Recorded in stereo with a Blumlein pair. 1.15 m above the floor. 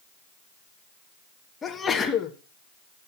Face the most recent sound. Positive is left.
turn(degrees=15)